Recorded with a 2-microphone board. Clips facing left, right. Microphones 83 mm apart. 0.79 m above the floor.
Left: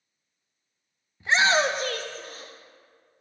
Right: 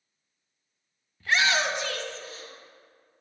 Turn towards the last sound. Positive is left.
turn(degrees=50)  # may be behind; listen again after turning